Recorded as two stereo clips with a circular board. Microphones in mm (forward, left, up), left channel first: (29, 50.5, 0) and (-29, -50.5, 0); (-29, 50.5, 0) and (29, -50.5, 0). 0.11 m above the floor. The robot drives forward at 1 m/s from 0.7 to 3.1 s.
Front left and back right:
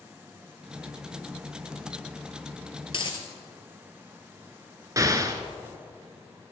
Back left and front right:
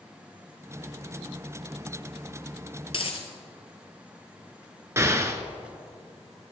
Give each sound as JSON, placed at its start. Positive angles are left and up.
{"t": 2.9, "sound": "a dropped coin", "azimuth_deg": 90, "distance_m": 1.0}
{"t": 5.0, "sound": "an explosion", "azimuth_deg": -100, "distance_m": 0.5}